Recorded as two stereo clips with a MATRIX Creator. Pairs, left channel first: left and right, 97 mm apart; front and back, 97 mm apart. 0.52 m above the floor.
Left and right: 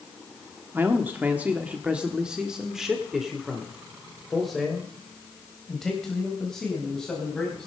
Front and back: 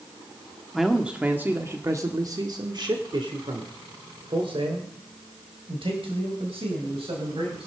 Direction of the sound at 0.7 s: 95° right.